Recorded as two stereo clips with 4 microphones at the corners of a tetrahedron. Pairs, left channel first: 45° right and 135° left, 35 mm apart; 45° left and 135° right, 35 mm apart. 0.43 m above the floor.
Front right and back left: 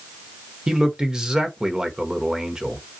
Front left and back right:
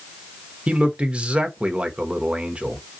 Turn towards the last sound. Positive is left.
turn(degrees=-170)